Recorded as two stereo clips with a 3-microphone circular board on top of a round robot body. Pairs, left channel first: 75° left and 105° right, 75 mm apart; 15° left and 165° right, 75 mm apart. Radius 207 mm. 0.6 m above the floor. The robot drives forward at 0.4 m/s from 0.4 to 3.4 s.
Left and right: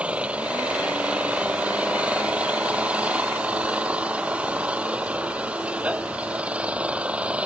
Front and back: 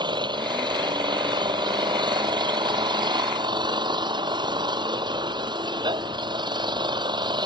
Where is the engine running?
Straight behind.